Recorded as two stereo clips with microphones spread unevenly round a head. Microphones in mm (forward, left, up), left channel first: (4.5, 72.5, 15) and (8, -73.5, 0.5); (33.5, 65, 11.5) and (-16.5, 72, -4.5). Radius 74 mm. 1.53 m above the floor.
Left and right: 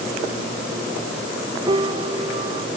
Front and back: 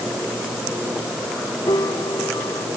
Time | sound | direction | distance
1.7 | a piano | 30° right | ?